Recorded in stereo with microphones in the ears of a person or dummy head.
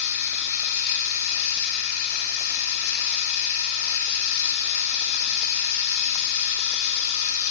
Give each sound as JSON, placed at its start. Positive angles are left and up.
{"t": 0.0, "sound": "running water", "side_deg": 55, "distance_m": 2.0}